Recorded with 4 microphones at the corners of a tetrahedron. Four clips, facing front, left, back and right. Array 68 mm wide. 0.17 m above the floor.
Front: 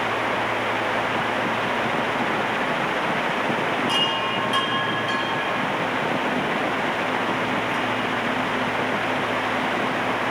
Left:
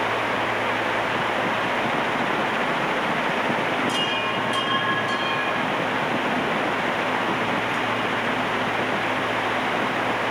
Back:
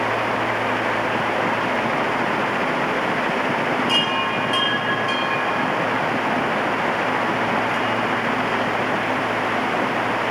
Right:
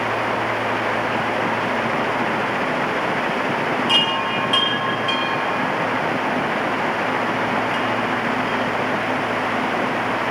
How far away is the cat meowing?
I don't hear a cat meowing.